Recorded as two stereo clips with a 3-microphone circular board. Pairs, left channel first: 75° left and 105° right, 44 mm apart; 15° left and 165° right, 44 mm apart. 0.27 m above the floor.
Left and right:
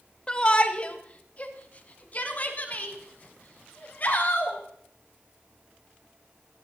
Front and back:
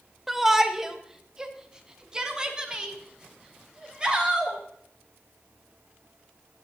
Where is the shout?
115° left, 1.1 m; by 4.6 s 125° left, 3.5 m.